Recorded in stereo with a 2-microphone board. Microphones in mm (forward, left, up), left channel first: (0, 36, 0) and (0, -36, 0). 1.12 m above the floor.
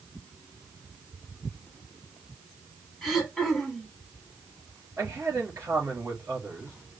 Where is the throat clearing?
5° left (ahead or behind), 1.6 m.